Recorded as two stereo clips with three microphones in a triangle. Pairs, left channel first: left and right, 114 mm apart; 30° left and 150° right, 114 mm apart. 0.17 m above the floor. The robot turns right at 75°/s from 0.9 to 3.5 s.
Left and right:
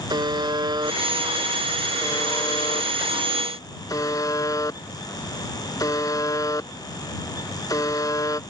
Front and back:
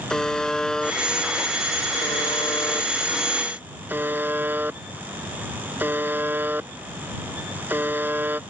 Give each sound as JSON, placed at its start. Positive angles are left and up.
{"t": 0.1, "sound": "a buzzer", "azimuth_deg": -55}